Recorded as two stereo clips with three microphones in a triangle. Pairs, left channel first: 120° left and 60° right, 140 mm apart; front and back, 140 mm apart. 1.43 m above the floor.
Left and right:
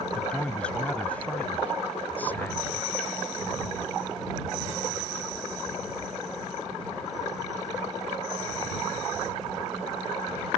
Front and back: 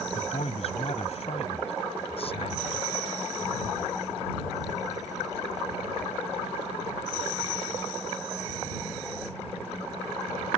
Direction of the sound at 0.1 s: 40° left.